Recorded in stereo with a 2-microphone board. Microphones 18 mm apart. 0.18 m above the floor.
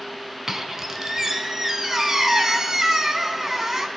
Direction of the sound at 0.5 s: 25° right (ahead or behind).